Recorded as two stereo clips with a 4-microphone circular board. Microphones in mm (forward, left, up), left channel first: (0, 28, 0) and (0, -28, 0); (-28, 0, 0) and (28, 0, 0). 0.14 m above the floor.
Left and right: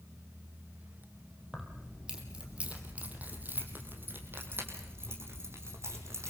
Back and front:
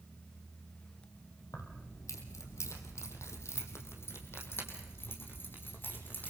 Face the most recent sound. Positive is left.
turn(degrees=-125)